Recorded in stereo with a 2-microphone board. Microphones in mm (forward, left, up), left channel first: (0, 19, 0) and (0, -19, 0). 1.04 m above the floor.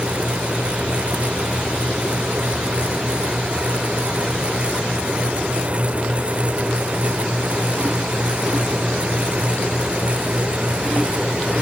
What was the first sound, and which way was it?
Only background noise.